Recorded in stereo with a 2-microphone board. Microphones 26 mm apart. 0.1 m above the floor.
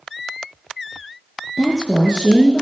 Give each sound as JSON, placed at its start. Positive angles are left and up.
{"t": 1.6, "sound": "a woman speaking", "side_deg": 35, "distance_m": 4.5}